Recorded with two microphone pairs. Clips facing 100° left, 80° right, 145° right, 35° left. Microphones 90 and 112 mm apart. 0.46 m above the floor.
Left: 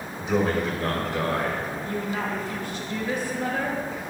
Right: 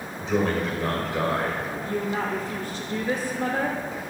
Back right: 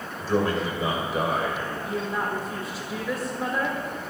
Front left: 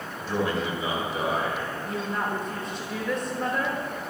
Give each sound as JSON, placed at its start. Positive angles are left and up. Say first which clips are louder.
{"t": 0.2, "sound": "a man speaking", "louder": "left 1 dB, back right 3 dB", "azimuth_deg": 170, "distance_m": 2.5}
{"t": 1.9, "sound": "a woman speaking", "louder": "right 3 dB, back right 1 dB", "azimuth_deg": -65, "distance_m": 0.9}